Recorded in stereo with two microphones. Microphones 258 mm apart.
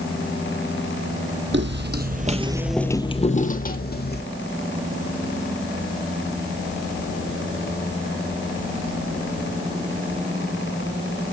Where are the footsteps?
50° right (ahead or behind), 1.3 m; by 4.2 s 45° left (ahead or behind), 1.8 m.